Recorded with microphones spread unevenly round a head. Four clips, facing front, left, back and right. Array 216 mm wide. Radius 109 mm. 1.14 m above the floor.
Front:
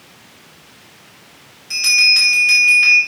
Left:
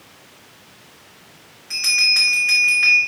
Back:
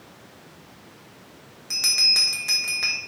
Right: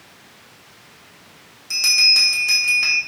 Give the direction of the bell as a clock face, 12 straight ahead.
5 o'clock.